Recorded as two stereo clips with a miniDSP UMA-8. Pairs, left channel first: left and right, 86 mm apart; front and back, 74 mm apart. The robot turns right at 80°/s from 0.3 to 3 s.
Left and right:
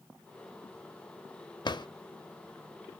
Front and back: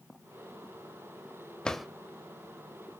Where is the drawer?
75° left, 0.6 m; by 1.9 s 95° left, 0.6 m.